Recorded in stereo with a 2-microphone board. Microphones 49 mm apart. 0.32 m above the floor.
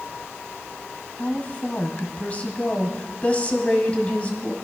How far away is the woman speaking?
About 2 m.